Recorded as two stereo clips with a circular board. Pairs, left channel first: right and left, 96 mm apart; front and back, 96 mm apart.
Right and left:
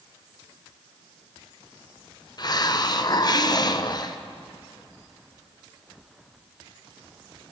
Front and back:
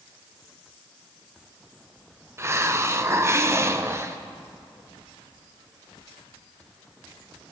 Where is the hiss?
125° right, 0.6 m.